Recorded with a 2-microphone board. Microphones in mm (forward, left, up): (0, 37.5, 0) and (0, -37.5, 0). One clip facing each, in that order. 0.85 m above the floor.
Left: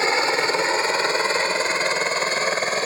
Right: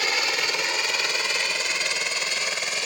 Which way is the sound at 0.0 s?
30° left (ahead or behind).